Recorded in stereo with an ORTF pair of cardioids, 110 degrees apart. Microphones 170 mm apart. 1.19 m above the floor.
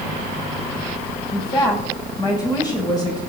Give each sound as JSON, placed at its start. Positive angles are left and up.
{"t": 1.3, "sound": "a woman speaking", "azimuth_deg": 25, "distance_m": 6.5}